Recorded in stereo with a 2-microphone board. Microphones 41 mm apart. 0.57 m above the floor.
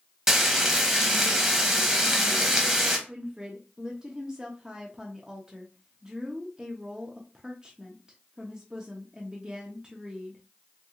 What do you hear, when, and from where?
0.3 s frying: 15° right (ahead or behind), 0.8 m
3.1 s a woman speaking: 20° right (ahead or behind), 0.7 m